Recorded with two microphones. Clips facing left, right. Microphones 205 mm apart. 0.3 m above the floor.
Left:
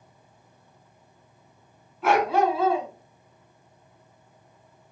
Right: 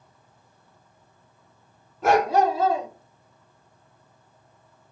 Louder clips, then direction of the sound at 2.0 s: Right 2 dB; 40° right (ahead or behind).